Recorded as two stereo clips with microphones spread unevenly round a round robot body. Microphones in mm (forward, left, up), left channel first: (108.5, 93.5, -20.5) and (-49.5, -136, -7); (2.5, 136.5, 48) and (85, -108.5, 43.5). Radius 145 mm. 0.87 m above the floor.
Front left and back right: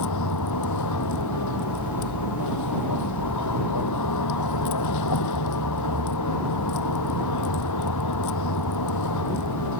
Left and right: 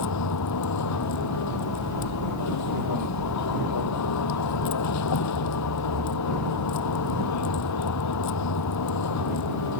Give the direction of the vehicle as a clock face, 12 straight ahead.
9 o'clock.